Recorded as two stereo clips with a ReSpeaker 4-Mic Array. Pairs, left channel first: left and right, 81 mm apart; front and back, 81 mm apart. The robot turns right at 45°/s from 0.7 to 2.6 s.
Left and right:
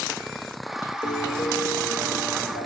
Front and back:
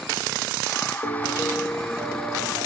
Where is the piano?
55° left, 2 m; by 2.7 s 130° left, 2 m.